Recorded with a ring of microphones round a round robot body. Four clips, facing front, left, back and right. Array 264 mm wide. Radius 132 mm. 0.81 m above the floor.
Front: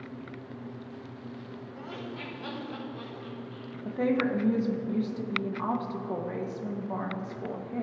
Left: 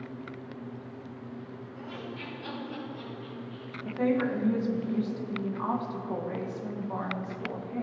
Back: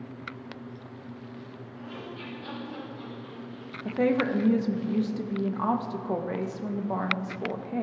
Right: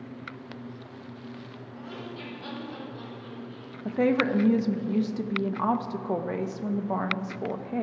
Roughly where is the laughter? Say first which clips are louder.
Right 2 dB, even; ahead right.